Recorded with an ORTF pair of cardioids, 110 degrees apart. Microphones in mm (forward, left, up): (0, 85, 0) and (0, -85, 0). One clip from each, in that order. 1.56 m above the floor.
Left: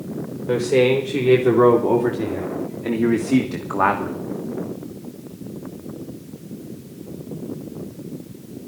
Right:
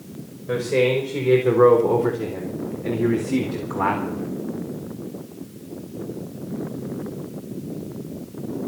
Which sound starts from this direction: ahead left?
A man speaking, at 0.5 s.